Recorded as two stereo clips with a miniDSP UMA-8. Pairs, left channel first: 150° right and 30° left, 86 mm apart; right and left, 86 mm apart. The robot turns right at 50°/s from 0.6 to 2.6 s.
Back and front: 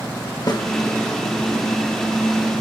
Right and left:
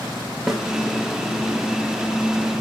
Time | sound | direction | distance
0.5 | a snare drum | 175° left | 1.5 m